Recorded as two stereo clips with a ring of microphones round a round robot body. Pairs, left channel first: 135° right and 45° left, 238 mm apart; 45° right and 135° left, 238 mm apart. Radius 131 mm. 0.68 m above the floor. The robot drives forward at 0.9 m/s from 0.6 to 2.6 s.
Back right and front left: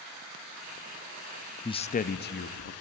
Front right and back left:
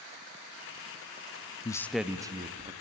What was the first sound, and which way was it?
A man speaking, 90° right.